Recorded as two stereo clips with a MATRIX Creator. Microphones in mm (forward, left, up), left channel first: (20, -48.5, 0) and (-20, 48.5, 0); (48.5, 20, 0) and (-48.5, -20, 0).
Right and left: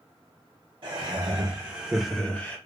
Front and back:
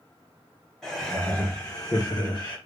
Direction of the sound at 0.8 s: 110° left.